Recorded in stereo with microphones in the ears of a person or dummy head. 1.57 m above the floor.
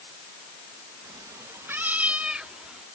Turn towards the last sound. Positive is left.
turn(degrees=0)  # may be behind; listen again after turning